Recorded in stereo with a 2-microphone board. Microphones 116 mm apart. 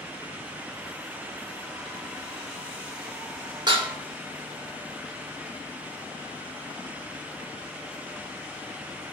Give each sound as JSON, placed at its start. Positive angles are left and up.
{"t": 3.7, "sound": "dishes clattering", "side_deg": -40, "distance_m": 0.6}